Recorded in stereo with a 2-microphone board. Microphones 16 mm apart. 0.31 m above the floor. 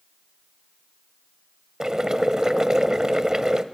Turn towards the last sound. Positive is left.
turn(degrees=-45)  # may be behind; listen again after turning